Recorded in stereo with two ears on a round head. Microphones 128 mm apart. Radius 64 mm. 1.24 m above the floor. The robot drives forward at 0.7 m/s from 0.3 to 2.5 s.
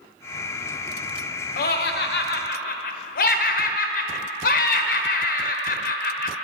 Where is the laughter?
65° left (ahead or behind), 0.9 m; by 6.3 s 70° left (ahead or behind), 0.9 m.